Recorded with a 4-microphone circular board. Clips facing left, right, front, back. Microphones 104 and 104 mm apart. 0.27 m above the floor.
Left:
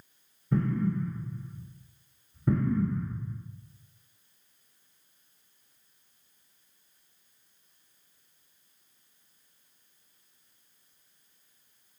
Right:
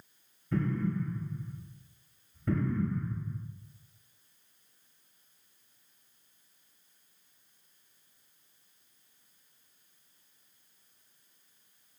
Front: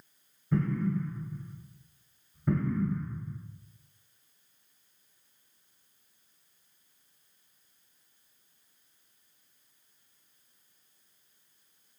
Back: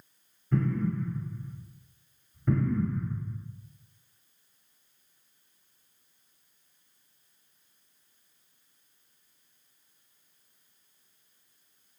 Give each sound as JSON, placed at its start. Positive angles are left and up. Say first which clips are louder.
{"t": 0.5, "sound": "an explosion", "louder": "left 3 dB, back 1 dB", "azimuth_deg": 75, "distance_m": 1.1}